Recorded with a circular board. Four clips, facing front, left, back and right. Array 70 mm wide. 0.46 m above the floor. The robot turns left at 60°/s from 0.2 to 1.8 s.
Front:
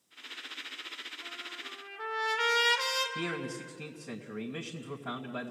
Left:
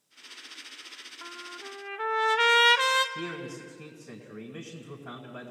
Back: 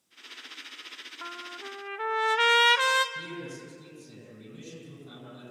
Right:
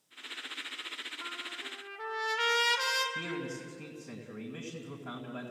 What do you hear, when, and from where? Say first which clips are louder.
1.2 s a trumpet: left 3 dB, back 9 dB; 170° left, 1.0 m; by 3.0 s 135° left, 1.0 m
3.1 s a man speaking: left 1 dB, front 3 dB; straight ahead, 2.5 m